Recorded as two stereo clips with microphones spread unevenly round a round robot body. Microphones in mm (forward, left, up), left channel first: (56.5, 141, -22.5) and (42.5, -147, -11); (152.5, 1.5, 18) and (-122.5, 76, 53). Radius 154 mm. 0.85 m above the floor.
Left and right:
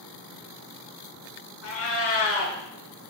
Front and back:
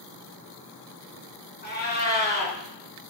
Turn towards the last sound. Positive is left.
turn(degrees=45)